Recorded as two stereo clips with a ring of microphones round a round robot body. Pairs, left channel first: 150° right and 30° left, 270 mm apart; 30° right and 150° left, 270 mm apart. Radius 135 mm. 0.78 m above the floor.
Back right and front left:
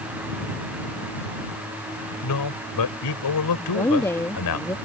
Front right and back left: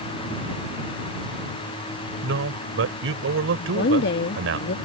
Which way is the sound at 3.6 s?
70° right.